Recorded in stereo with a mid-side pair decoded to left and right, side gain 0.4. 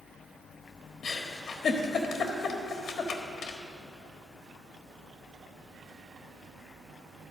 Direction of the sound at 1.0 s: 60° left.